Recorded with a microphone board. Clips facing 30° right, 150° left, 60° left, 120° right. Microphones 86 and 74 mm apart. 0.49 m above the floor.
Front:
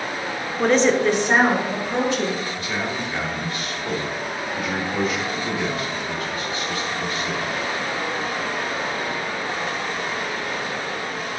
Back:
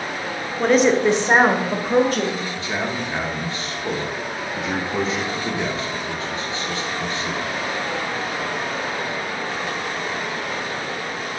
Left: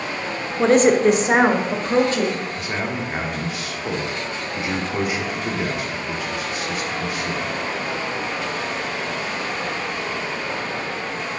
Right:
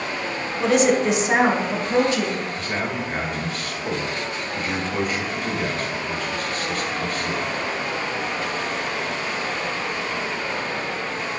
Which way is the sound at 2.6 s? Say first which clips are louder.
Back 1 dB, even; 125° left.